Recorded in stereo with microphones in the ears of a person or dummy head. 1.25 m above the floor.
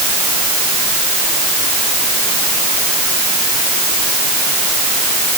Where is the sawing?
I don't hear sawing.